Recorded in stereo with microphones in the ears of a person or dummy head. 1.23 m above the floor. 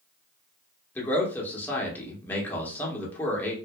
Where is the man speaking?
10° left (ahead or behind), 1.1 m.